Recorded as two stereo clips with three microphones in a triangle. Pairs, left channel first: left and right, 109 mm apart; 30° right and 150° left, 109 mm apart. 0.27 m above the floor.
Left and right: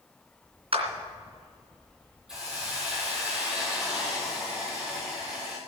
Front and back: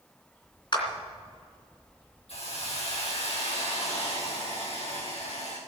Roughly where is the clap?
Right.